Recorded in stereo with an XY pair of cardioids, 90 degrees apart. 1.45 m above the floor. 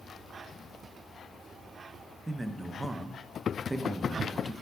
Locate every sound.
2.3 s a man speaking: 20° right, 0.7 m